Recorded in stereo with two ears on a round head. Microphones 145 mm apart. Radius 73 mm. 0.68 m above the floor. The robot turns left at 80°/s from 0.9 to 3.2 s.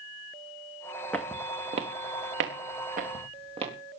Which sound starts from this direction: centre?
Footsteps, at 1.1 s.